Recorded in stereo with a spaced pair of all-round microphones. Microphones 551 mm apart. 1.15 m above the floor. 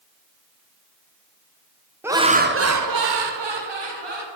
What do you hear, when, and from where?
2.0 s laughter: 5° right (ahead or behind), 0.6 m; by 4.3 s 50° right (ahead or behind), 0.9 m